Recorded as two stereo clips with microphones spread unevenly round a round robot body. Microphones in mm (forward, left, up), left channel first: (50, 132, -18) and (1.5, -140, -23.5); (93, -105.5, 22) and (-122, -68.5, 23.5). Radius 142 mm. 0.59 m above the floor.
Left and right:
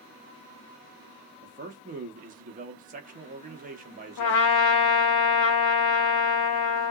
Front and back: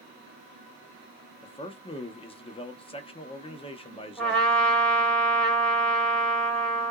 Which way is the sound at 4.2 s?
75° left.